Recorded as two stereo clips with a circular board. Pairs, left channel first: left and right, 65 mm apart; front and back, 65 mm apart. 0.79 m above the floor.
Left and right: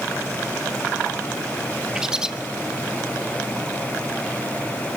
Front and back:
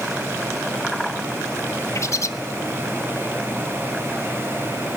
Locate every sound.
1.9 s a bird: 15° right, 1.0 m